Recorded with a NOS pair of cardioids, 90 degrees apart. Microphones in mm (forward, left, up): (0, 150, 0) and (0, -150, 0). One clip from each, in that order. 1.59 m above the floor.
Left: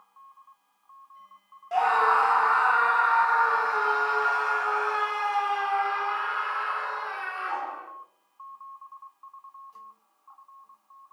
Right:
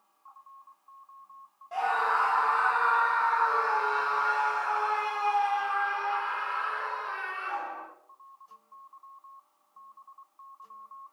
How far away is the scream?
About 0.9 m.